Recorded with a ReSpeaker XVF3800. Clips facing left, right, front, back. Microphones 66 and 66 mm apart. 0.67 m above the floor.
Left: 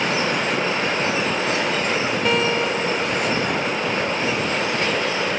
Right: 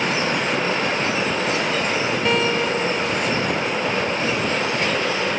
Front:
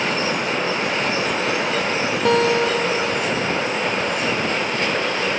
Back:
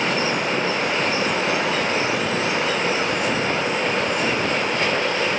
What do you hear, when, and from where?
2.2 s a guitar: straight ahead